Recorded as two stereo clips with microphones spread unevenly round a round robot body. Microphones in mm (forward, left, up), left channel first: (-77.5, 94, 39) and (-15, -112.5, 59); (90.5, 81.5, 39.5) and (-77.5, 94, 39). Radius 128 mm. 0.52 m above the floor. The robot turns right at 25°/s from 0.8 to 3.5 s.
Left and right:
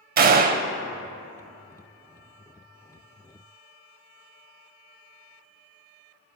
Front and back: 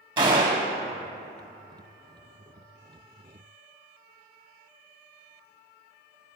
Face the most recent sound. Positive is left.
turn(degrees=-45)